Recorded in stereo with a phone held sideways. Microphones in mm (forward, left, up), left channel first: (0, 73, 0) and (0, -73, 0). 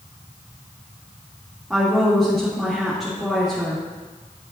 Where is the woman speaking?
5° right (ahead or behind), 3 m.